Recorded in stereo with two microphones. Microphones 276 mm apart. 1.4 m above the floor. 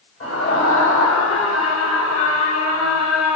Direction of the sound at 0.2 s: 50° left (ahead or behind).